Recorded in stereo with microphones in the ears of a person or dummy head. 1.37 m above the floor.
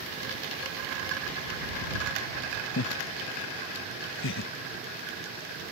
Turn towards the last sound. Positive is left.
turn(degrees=65)  # may be behind; listen again after turning